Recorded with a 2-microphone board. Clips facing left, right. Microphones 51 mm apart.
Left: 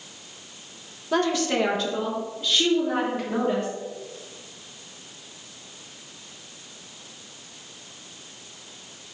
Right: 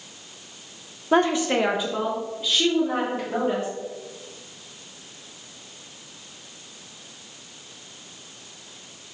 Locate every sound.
1.1 s a woman speaking: 30° right (ahead or behind), 0.6 m; by 3.7 s 5° right (ahead or behind), 3.5 m